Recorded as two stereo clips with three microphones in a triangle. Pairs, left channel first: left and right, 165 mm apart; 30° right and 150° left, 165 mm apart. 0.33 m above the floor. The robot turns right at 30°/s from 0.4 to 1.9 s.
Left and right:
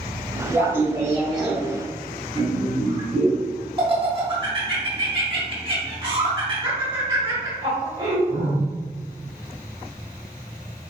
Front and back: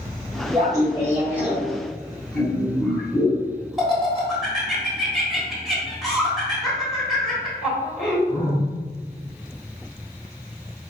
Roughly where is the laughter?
Behind.